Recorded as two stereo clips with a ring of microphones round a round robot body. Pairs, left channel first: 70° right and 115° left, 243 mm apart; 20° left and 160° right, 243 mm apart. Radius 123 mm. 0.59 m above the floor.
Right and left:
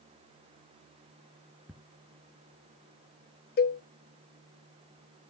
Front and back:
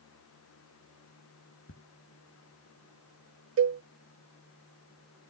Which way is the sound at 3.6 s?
120° right.